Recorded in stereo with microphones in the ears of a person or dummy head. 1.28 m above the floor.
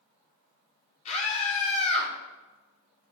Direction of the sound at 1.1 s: 30° left (ahead or behind).